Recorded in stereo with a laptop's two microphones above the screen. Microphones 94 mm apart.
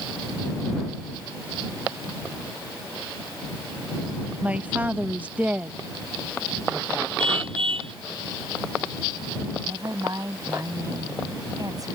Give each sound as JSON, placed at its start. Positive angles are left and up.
{"t": 4.4, "sound": "a man speaking", "side_deg": -15}
{"t": 7.2, "sound": "a car horn", "side_deg": -75}
{"t": 9.6, "sound": "a woman speaking", "side_deg": -40}